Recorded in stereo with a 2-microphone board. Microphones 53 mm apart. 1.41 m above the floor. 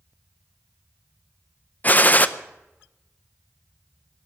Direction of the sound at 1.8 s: 35° left (ahead or behind).